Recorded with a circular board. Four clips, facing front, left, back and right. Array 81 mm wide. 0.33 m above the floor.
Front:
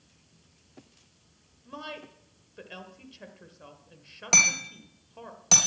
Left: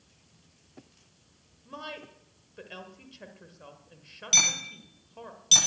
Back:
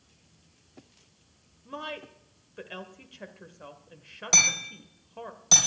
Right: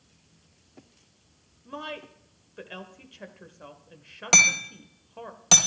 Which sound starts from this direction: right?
Hammering, at 4.3 s.